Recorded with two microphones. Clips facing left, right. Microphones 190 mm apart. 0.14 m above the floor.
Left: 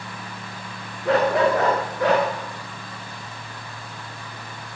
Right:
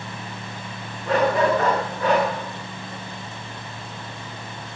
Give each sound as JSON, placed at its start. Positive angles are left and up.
{"t": 1.1, "sound": "a dog barking", "side_deg": 75, "distance_m": 9.0}